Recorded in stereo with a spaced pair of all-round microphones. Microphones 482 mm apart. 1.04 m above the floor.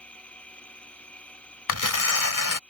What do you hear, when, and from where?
0.0 s a machine running: centre (ahead or behind)
1.7 s tearing paper: 40° left (ahead or behind)